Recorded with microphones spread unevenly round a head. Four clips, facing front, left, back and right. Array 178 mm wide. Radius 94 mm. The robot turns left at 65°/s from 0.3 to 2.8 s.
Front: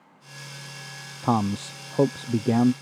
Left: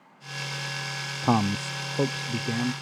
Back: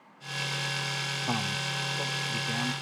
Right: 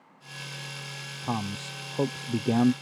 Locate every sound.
1.2 s a man speaking: 60° left; by 2.7 s 40° right